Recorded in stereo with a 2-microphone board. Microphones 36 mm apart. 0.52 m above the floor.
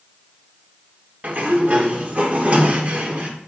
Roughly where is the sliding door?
Right.